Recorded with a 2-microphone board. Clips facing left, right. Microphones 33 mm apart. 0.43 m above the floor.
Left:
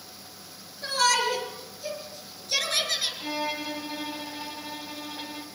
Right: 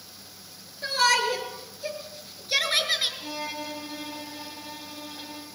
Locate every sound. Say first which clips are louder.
0.8 s a shout: right 1 dB; 20° right (ahead or behind), 7 m; by 3.1 s 30° right (ahead or behind), 5.5 m
3.2 s a violin: left 3 dB; 20° left (ahead or behind), 3 m